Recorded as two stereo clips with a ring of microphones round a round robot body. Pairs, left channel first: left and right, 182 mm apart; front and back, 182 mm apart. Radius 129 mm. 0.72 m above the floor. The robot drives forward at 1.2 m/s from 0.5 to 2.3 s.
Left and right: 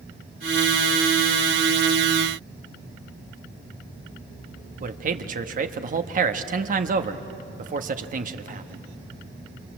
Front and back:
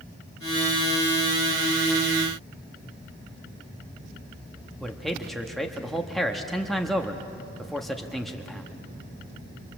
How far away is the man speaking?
About 1.1 m.